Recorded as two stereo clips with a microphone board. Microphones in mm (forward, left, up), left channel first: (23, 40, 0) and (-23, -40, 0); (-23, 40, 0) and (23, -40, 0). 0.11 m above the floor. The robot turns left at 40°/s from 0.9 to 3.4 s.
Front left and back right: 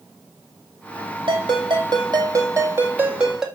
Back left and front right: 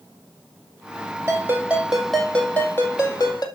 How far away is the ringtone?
About 2.5 m.